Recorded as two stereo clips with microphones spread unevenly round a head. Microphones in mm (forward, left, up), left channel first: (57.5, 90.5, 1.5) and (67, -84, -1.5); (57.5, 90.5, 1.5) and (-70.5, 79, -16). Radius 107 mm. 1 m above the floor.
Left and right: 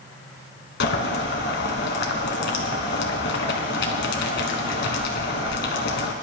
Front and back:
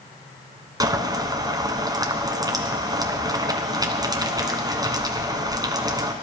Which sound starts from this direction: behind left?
Boiling, at 0.8 s.